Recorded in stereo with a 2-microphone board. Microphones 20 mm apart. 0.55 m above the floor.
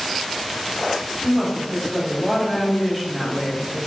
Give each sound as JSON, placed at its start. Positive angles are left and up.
{"t": 1.2, "sound": "a woman speaking", "side_deg": -5, "distance_m": 1.1}